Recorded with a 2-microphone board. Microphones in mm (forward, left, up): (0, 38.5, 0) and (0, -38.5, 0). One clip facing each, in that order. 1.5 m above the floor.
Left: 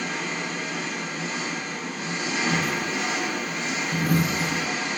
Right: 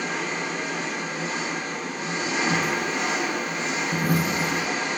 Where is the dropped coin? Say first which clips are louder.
Right 1 dB; 20° right (ahead or behind), 0.9 m.